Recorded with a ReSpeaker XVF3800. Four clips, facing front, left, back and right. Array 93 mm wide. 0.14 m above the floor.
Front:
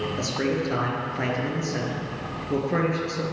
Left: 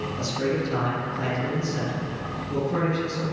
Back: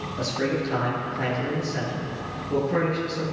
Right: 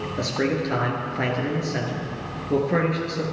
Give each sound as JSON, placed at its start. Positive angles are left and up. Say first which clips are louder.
{"t": 0.2, "sound": "a man speaking", "louder": "right 3 dB, back 2 dB", "azimuth_deg": -75, "distance_m": 2.5}